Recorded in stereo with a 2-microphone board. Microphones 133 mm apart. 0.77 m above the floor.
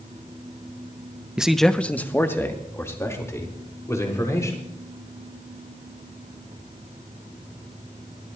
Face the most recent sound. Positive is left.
turn(degrees=20)  # may be behind; listen again after turning